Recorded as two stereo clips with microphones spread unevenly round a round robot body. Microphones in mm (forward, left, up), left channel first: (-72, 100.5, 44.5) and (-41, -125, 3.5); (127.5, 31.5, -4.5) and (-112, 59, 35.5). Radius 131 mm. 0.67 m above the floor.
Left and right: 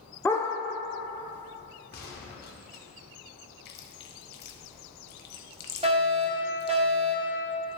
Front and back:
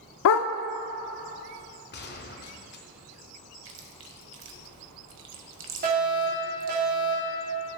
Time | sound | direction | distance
0.2 | a dog barking | 15° left | 0.5 m
1.9 | a gunshot | 40° left | 0.8 m
3.6 | chewing | 140° left | 1.1 m
5.8 | a fire alarm | 130° right | 2.5 m